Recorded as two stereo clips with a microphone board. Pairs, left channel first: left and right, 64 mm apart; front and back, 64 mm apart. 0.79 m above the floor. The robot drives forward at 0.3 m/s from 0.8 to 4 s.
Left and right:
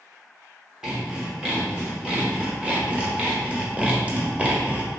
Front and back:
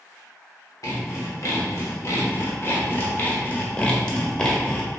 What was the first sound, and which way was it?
Sawing, 15° right.